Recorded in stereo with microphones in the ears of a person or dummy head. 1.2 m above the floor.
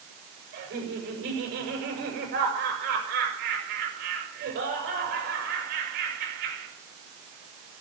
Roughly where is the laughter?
Right.